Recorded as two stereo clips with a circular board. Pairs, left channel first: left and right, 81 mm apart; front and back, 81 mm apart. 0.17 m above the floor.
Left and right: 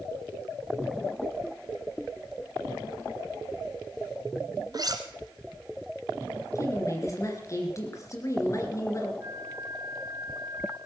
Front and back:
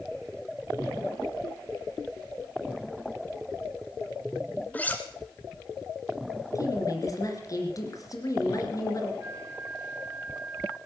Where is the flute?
120° right, 2 m.